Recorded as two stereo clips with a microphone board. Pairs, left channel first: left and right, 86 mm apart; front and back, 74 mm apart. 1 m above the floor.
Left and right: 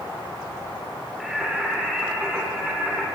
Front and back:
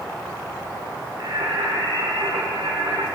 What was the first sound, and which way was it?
Singing, 175° right.